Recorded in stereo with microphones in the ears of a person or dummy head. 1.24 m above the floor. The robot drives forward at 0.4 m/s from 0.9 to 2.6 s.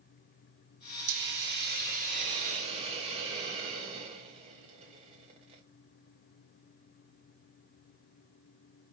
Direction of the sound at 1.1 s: 55° right (ahead or behind).